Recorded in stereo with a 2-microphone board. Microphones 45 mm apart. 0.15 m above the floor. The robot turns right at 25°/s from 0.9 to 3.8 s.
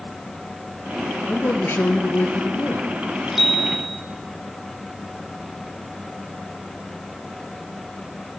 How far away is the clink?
No clink in this recording.